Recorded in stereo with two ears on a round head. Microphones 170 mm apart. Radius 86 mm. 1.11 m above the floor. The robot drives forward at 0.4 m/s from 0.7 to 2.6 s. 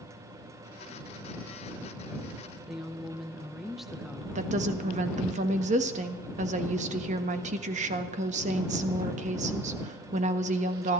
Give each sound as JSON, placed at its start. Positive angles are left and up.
{"t": 2.7, "sound": "a woman speaking", "side_deg": 0, "distance_m": 1.0}
{"t": 4.3, "sound": "a woman speaking", "side_deg": -40, "distance_m": 1.4}